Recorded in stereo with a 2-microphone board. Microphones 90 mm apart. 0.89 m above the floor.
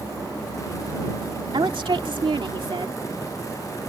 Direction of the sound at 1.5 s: 70° right (ahead or behind).